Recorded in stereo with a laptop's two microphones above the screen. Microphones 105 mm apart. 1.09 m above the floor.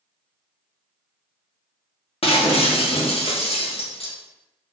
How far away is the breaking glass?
About 0.5 m.